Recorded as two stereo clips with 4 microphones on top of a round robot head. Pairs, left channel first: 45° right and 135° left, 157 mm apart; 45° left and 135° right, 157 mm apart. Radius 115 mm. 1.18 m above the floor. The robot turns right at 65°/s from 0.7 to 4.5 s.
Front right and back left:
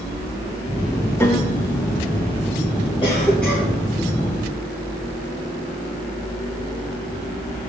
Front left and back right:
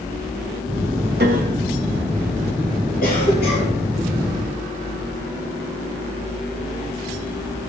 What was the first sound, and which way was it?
A piano, 115° right.